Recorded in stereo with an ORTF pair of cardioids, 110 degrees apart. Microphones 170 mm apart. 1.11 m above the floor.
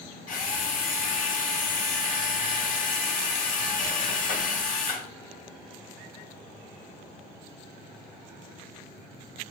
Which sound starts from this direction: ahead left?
A drill, at 0.3 s.